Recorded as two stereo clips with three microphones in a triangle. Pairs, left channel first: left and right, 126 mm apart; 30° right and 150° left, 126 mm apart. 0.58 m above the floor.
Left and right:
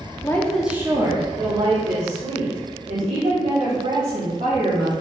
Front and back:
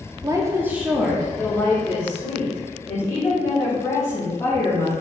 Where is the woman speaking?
130° left, 0.7 m; by 4.9 s 95° right, 3.5 m.